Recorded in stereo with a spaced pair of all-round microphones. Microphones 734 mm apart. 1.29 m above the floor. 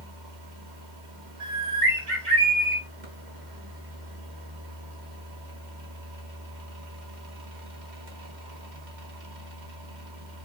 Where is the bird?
75° right (ahead or behind), 3 m.